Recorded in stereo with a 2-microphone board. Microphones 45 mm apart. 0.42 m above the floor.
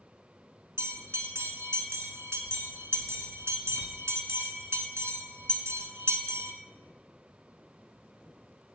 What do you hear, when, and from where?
0.8 s a bell: 85° right, 1.2 m